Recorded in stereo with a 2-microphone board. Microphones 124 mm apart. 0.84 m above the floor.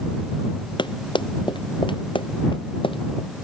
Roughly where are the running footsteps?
Left.